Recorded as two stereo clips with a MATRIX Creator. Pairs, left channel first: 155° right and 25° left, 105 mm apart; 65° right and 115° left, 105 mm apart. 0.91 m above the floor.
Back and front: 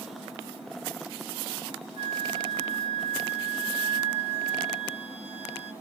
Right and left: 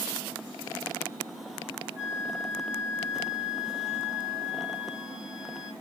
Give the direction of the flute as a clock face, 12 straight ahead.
6 o'clock.